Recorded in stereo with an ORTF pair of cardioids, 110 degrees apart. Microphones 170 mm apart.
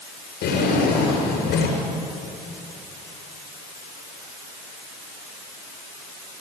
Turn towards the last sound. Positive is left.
turn(degrees=70)